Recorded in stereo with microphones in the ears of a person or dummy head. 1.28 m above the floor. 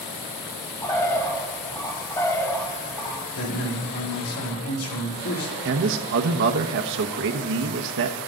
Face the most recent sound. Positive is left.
turn(degrees=-65)  # may be behind; listen again after turning